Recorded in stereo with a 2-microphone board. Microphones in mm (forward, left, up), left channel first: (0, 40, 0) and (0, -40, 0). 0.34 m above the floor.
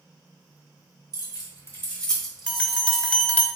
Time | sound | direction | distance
1.1 | keys jangling | 50° left (ahead or behind) | 1.6 m
2.5 | a bell | 15° left (ahead or behind) | 0.5 m